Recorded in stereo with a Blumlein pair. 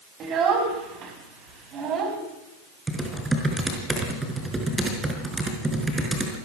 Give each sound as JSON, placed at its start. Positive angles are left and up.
{"t": 0.2, "sound": "a child speaking", "azimuth_deg": -30, "distance_m": 5.0}
{"t": 2.9, "sound": "typing on a keyboard", "azimuth_deg": -10, "distance_m": 5.0}